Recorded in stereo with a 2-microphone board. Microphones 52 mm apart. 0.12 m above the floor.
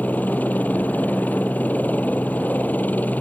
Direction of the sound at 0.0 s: 35° left (ahead or behind).